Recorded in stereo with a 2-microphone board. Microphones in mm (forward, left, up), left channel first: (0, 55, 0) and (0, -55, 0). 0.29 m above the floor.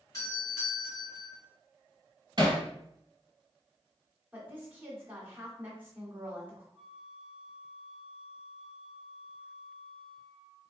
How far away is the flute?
About 0.7 m.